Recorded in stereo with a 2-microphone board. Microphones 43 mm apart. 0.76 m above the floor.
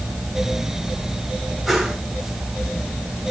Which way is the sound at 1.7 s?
Centre (ahead or behind).